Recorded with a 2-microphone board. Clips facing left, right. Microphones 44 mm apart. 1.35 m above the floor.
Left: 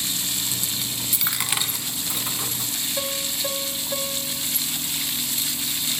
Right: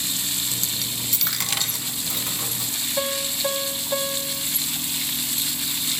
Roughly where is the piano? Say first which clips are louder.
Right 4 dB; centre.